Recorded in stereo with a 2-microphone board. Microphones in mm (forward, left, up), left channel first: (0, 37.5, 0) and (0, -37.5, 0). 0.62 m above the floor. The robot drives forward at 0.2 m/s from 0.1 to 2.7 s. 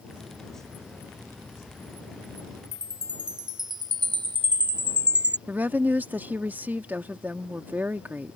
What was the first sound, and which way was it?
A chime, 80° right.